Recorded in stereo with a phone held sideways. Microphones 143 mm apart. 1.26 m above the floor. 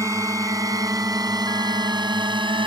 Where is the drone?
20° right (ahead or behind); by 2.7 s 35° right (ahead or behind).